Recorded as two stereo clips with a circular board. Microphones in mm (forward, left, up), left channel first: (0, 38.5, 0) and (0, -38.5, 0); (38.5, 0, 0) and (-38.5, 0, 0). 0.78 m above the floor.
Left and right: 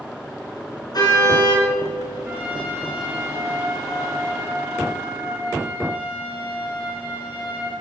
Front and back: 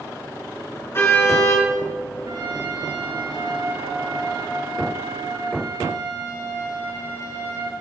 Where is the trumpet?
155° right, 7 m.